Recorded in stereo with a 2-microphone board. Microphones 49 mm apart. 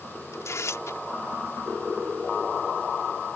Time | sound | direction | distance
0.3 | tearing paper | 80° left | ?